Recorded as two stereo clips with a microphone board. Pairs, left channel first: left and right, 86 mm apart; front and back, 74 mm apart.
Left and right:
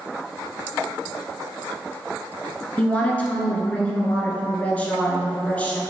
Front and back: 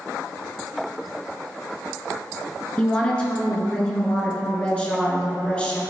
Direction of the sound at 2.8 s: 45° left.